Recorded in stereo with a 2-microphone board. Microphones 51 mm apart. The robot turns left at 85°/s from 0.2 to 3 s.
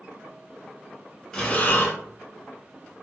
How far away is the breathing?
About 0.9 m.